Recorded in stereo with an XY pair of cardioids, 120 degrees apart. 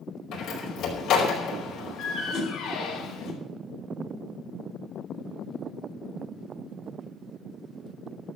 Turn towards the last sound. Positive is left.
turn(degrees=60)